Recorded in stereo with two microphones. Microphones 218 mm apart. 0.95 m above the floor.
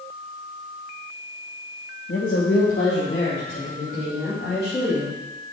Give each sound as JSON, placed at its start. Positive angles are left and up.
{"t": 2.1, "sound": "a woman speaking", "side_deg": 70, "distance_m": 1.1}